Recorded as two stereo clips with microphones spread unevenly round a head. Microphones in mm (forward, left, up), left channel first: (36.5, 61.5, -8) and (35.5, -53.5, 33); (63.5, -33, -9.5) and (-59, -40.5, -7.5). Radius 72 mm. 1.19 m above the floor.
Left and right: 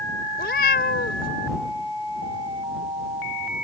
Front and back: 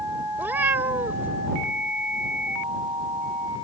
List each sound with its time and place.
0.4 s a cat meowing: 110° left